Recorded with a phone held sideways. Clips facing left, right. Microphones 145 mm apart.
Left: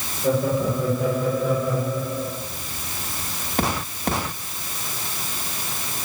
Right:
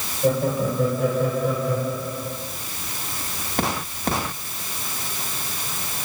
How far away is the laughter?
About 7.5 m.